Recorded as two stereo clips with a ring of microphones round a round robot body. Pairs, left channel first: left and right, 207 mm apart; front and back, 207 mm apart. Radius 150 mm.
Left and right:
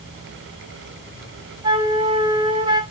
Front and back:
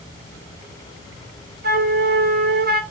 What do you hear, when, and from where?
1.6 s a flute: 155° right, 1.2 m